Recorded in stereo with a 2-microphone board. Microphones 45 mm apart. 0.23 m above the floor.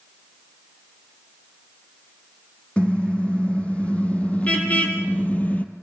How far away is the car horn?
About 5.5 m.